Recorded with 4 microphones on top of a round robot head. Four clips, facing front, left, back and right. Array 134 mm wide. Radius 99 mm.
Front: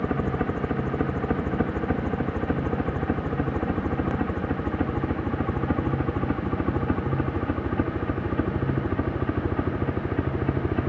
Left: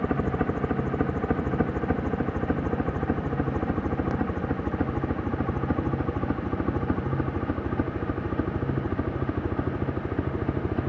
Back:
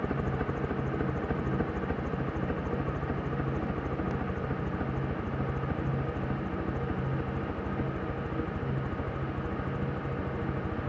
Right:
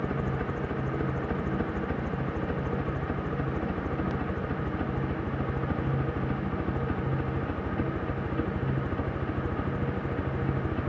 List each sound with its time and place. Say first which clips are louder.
0.0 s a helicopter: left 5 dB, front 6 dB; 55° left; by 10.9 s 25° left